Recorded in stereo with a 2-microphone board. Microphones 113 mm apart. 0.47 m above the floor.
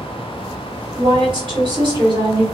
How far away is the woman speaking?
About 1.9 m.